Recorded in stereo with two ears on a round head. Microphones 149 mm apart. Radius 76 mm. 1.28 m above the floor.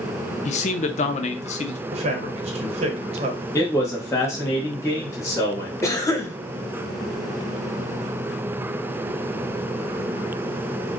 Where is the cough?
20° left (ahead or behind), 0.8 m.